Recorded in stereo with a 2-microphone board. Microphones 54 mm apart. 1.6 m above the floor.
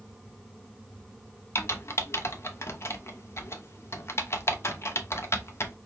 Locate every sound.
1.6 s typing on a keyboard: 50° left (ahead or behind), 0.7 m